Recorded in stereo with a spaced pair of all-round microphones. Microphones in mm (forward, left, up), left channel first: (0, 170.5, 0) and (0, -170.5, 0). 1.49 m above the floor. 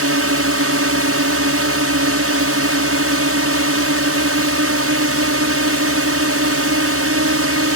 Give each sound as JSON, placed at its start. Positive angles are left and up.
{"t": 0.0, "sound": "a drone", "side_deg": -40}